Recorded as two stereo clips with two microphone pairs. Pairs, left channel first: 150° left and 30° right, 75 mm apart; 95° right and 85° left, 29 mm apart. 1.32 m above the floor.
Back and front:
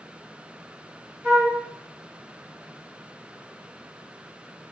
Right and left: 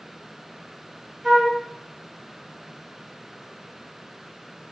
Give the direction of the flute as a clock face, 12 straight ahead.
11 o'clock.